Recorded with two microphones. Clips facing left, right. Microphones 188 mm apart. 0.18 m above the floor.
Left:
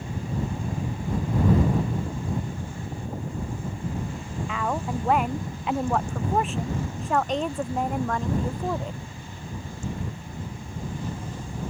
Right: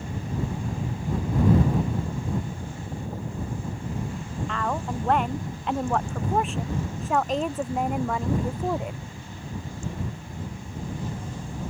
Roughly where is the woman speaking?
Centre.